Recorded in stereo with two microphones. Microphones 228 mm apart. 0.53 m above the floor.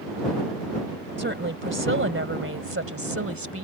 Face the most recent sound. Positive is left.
turn(degrees=-70)  # may be behind; listen again after turning